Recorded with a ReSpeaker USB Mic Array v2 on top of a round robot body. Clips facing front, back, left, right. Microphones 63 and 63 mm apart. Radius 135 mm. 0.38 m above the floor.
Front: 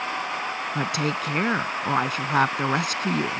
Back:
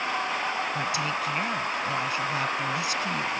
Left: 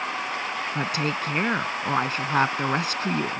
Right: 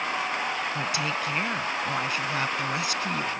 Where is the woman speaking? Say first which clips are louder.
Front 2 dB, left 2 dB; 40° left.